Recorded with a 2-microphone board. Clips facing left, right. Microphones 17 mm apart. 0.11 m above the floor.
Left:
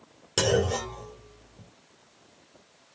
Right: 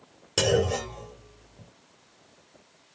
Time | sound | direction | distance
0.4 | a clunk | 15° left (ahead or behind) | 1.7 m